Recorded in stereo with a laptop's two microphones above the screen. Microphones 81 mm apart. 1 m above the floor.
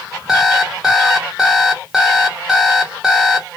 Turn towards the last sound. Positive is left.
turn(degrees=0)  # may be behind; listen again after turning